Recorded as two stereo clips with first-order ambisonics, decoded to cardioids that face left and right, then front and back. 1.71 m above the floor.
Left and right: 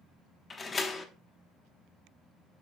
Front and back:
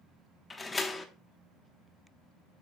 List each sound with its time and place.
0.5 s a door slam: 55° left, 0.9 m